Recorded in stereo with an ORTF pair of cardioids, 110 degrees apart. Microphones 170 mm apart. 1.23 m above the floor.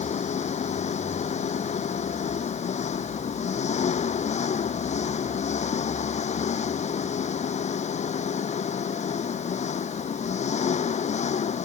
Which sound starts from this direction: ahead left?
An engine running, at 0.0 s.